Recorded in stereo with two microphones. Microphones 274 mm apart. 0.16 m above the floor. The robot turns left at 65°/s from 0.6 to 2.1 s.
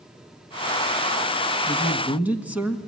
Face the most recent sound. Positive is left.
turn(degrees=-5)  # may be behind; listen again after turning